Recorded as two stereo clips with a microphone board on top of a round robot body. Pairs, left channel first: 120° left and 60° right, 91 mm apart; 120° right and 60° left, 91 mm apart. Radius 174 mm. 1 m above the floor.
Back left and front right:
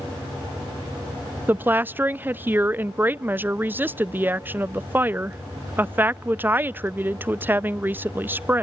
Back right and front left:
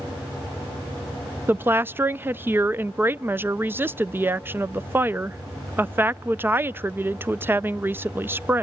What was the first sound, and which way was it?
A woman speaking, straight ahead.